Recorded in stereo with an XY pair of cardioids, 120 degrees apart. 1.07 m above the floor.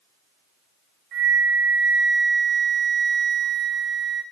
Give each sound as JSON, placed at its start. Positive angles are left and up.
{"t": 1.1, "sound": "a flute", "azimuth_deg": -65, "distance_m": 3.5}